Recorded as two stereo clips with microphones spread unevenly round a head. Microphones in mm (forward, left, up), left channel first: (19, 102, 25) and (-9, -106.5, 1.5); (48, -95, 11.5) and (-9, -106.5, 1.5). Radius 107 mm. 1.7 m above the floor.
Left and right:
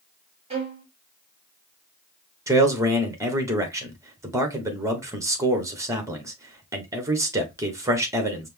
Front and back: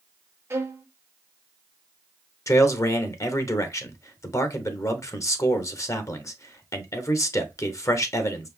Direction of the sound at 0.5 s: 155° right.